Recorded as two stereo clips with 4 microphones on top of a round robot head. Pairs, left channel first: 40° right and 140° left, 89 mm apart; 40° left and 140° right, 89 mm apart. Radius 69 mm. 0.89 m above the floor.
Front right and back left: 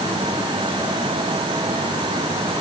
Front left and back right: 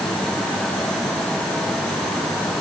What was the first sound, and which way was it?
Only background noise.